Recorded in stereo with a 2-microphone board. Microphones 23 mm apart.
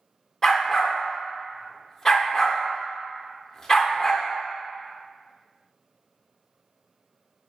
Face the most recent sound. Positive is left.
turn(degrees=15)  # may be behind; listen again after turning